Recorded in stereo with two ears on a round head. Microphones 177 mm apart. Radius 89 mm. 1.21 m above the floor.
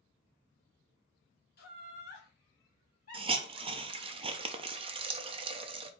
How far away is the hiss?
About 0.5 m.